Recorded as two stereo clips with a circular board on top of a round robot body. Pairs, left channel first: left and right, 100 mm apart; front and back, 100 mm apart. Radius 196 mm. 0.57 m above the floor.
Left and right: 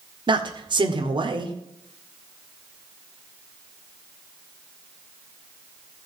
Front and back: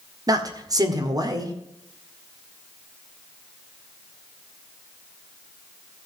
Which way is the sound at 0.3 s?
130° right.